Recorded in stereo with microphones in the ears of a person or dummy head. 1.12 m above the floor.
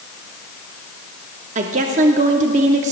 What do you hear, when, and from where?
1.6 s a woman speaking: 35° right (ahead or behind), 0.7 m